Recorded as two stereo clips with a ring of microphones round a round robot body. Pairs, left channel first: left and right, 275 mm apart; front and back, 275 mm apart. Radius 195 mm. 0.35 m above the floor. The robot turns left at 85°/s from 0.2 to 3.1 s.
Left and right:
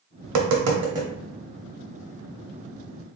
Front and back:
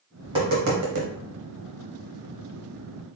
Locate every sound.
0.2 s tapping: 95° right, 0.6 m; by 1.1 s 165° right, 0.6 m